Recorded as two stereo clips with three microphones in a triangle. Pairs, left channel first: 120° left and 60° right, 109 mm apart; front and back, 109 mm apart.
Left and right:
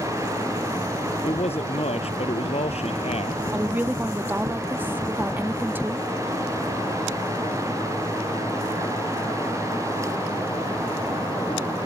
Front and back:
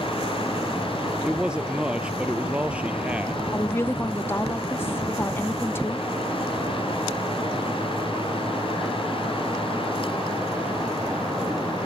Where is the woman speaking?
20° right.